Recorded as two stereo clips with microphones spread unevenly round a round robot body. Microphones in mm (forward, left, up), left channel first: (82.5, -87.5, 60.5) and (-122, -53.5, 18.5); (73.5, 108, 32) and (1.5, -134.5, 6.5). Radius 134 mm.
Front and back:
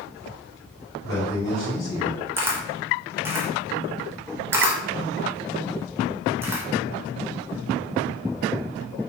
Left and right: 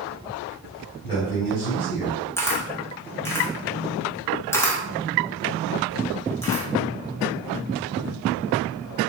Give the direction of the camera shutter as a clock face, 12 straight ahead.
7 o'clock.